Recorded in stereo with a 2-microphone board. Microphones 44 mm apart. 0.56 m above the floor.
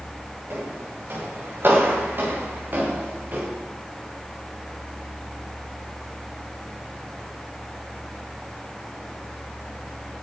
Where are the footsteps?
60° right (ahead or behind), 9.5 m; by 3.5 s 45° right (ahead or behind), 8 m.